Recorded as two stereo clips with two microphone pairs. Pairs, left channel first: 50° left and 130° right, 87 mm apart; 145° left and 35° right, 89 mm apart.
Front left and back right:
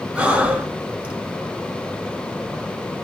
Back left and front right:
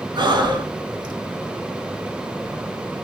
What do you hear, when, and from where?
0.1 s breathing: 55° right, 0.6 m